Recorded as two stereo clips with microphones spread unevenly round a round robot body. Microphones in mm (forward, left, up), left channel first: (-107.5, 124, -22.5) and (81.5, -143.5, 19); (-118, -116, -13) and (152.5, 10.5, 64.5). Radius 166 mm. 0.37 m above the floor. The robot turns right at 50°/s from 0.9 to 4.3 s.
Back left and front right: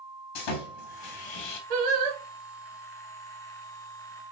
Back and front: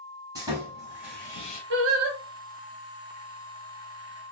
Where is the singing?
35° right, 0.7 m; by 2.2 s 10° right, 0.7 m.